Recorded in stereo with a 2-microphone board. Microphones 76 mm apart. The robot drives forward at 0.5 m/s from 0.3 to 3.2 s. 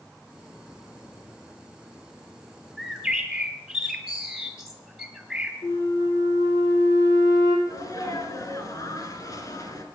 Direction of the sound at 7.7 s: 50° left (ahead or behind).